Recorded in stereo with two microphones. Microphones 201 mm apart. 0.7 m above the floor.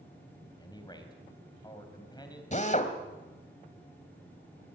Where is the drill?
40° left (ahead or behind), 1.9 m.